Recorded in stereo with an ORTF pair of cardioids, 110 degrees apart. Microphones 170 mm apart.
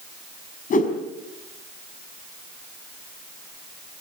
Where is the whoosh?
55° left, 5 m.